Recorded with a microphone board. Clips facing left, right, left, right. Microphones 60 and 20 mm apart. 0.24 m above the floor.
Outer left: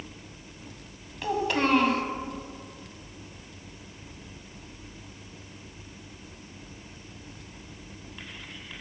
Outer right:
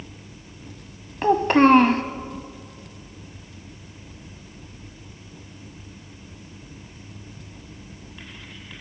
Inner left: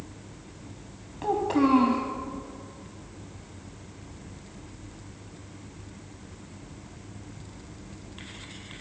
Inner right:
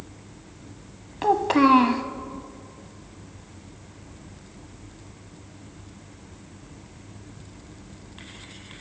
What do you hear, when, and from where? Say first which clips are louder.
1.2 s a child speaking: outer right 10 dB, inner right 5 dB; 45° right (ahead or behind), 0.7 m